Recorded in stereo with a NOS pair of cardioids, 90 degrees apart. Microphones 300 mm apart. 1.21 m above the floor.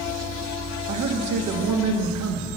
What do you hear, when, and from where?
0.9 s a man speaking: 65° right, 1.9 m